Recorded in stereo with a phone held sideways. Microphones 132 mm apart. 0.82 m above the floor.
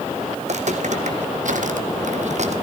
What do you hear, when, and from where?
0.4 s footsteps: 55° right (ahead or behind), 2.5 m